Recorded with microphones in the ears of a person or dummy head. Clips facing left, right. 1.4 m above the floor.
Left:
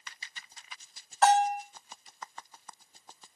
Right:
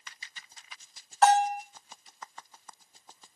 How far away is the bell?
About 1.1 m.